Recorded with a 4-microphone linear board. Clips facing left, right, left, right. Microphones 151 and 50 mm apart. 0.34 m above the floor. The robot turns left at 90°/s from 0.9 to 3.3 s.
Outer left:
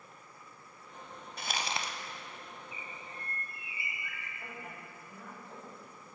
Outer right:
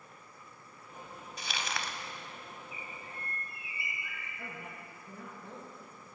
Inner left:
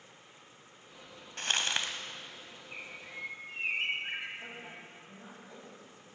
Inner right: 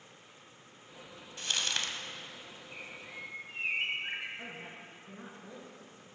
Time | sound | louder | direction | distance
1.4 | crumpling | outer left 2 dB, inner left 2 dB | 60° left | 0.6 m
2.7 | a bird | outer right 1 dB, inner left 2 dB | 50° left | 1.5 m
4.4 | a woman speaking | outer right 1 dB, even | 60° right (ahead or behind) | 3.5 m